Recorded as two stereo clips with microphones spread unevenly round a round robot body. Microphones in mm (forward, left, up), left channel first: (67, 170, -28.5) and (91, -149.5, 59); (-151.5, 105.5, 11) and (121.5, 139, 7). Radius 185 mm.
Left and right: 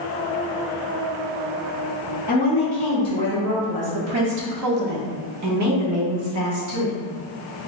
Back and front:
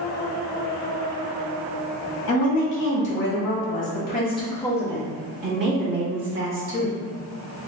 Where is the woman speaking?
Straight behind, 1.4 m; by 7.0 s 25° right, 1.6 m.